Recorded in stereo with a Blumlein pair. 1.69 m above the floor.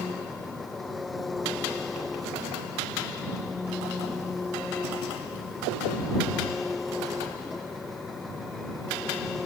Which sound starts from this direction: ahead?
An engine running, at 0.0 s.